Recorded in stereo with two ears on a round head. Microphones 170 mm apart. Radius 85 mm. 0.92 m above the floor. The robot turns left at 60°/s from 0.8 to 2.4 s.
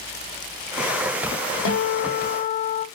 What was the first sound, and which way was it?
A guitar, 100° left.